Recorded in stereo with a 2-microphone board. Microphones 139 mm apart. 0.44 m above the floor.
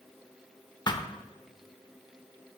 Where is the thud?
30° left (ahead or behind), 0.5 m.